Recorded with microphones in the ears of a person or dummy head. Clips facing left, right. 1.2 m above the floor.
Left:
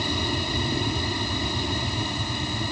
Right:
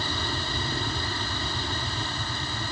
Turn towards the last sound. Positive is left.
turn(degrees=10)  # may be behind; listen again after turning